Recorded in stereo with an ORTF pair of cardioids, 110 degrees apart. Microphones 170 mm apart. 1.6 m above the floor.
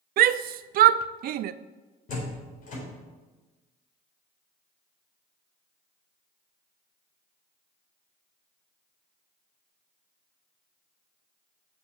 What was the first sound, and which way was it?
A shout, 60° right.